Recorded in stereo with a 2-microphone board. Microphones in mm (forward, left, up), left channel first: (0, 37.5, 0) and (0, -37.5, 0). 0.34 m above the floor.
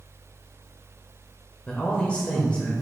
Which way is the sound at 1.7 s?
15° left (ahead or behind).